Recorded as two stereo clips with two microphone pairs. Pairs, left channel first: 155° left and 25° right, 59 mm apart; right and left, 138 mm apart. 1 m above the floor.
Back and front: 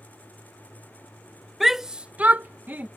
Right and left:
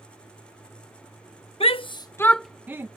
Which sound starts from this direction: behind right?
A shout, at 1.6 s.